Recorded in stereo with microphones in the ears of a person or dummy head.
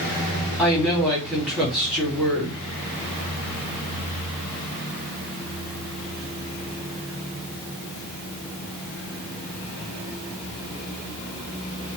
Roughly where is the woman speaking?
Centre.